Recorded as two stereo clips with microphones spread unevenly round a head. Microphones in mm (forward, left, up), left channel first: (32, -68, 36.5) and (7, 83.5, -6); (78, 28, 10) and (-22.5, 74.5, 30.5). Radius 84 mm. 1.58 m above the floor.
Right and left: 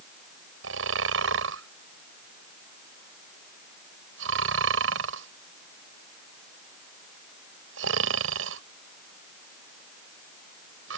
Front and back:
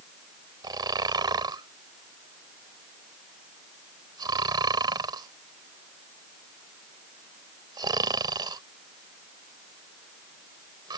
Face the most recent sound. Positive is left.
turn(degrees=110)